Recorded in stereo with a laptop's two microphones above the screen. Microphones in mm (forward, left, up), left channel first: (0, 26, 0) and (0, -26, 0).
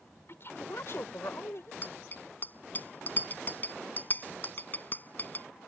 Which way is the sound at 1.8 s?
35° left (ahead or behind).